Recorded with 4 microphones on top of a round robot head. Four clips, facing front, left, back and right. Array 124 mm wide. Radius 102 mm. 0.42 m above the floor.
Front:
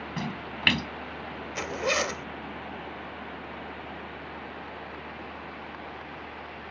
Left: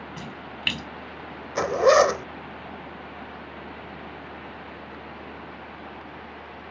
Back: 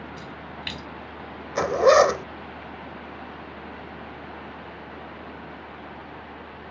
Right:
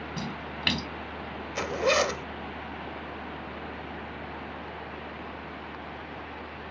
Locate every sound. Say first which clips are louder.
0.2 s a splash: right 2 dB, front 3 dB; 15° right
1.6 s a zipper: left 8 dB, back 14 dB; 145° left